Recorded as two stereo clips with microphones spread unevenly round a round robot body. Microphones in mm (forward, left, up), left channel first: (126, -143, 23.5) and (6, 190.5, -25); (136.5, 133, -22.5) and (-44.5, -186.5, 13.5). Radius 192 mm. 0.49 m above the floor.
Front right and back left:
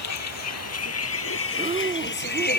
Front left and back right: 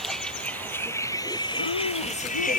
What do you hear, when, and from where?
0.0 s a vehicle: 30° right; by 2.6 s 5° right
1.6 s breathing: 35° left